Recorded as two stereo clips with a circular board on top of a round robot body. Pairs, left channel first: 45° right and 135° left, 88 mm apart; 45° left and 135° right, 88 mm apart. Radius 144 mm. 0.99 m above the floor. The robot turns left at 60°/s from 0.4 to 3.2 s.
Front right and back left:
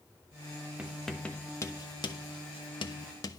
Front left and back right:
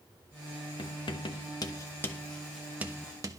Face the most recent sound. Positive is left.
turn(degrees=-85)